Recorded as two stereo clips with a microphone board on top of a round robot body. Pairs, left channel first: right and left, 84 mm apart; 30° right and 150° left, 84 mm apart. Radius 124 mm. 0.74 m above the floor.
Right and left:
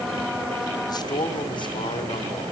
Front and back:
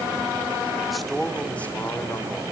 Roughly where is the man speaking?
Behind right.